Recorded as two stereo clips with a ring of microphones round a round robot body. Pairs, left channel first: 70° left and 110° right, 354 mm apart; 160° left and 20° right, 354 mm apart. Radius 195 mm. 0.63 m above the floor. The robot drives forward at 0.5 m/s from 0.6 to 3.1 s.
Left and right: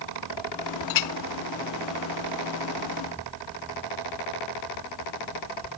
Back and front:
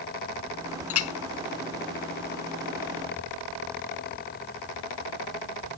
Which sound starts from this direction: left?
A clink, at 0.9 s.